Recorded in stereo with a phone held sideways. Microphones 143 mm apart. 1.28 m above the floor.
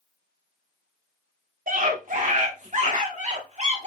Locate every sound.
1.7 s a scream: 75° right (ahead or behind), 3.5 m; by 3.9 s 50° right (ahead or behind), 4 m